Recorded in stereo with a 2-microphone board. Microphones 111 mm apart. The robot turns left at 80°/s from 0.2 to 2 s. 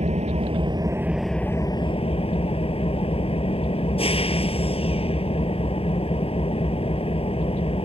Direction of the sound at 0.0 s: 95° right.